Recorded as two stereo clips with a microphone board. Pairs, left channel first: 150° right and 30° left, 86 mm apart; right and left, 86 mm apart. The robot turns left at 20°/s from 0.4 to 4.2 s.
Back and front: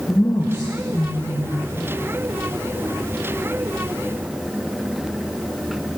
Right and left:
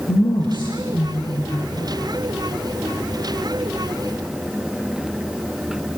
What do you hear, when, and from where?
0.1 s a woman speaking: 95° right, 2.5 m; by 1.9 s 125° right, 2.5 m